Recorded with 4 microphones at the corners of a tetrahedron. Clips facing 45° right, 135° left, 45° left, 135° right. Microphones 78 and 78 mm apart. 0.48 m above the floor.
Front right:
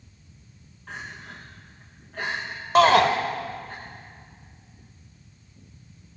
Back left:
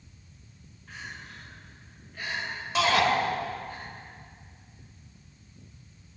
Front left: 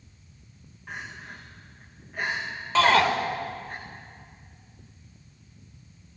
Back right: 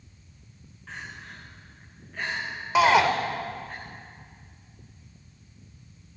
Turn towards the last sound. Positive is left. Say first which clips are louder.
# front right 8 dB, back right 1 dB
turn(degrees=-60)